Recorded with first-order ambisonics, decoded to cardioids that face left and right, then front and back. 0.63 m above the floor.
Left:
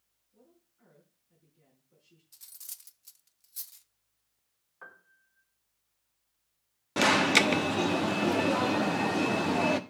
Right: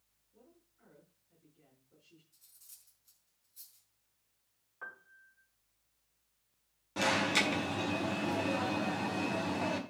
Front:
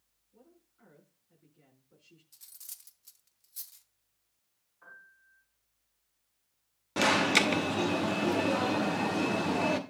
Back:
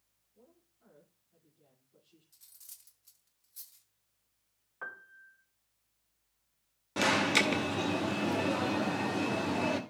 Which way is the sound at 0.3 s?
Straight ahead.